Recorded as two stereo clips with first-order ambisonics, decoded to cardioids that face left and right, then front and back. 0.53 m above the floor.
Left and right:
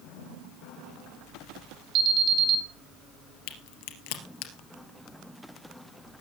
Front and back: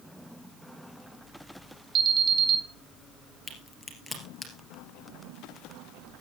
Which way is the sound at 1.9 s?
130° right.